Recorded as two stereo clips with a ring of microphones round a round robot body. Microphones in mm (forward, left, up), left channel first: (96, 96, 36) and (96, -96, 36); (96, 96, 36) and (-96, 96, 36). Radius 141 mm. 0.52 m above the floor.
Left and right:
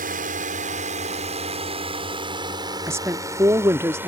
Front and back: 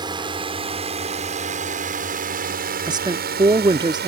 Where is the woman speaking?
150° right.